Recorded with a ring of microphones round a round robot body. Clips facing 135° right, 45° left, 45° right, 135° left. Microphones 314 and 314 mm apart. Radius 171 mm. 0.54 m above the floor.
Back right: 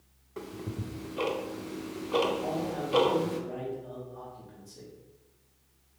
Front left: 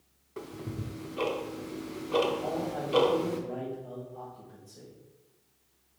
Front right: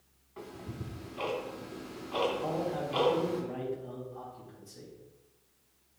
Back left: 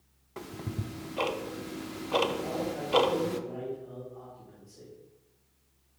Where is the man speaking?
80° right, 2 m.